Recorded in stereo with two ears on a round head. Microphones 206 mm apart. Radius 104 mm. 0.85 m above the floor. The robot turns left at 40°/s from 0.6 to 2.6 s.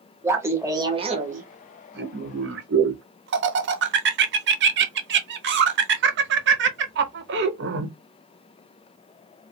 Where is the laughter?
10° right (ahead or behind), 0.7 m; by 7.9 s 50° right (ahead or behind), 0.7 m.